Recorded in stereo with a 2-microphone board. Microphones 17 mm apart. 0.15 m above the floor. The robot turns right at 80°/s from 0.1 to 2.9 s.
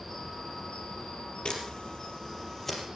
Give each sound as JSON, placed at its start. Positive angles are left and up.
{"t": 0.0, "sound": "an insect", "azimuth_deg": -10, "distance_m": 3.0}
{"t": 1.4, "sound": "a camera shutter", "side_deg": 60, "distance_m": 3.0}